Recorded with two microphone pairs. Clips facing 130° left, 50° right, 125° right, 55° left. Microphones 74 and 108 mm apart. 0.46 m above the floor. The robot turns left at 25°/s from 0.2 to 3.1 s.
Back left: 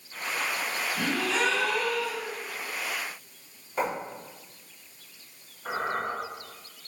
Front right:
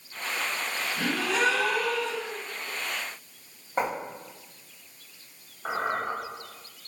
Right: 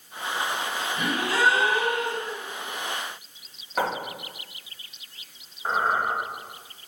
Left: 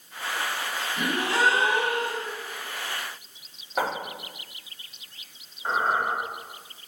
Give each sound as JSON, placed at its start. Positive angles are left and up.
{"t": 1.0, "sound": "a gasp", "azimuth_deg": 40, "distance_m": 1.6}
{"t": 3.8, "sound": "writing", "azimuth_deg": -20, "distance_m": 1.6}
{"t": 5.7, "sound": "a squeak", "azimuth_deg": -45, "distance_m": 1.5}